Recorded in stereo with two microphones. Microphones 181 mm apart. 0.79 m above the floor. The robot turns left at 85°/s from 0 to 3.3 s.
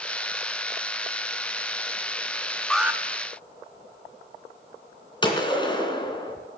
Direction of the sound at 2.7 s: 5° left (ahead or behind).